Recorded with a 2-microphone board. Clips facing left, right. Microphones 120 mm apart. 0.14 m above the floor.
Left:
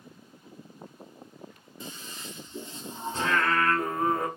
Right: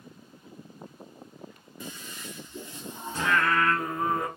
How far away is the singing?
About 1.8 m.